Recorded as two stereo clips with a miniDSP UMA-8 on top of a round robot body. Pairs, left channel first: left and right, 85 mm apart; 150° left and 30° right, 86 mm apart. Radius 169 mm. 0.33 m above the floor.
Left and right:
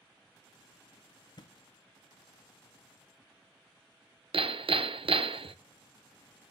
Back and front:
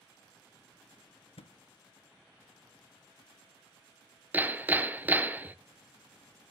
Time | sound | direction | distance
1.4 | a thud | 135° left | 0.6 m
4.3 | hammering | 100° right | 0.8 m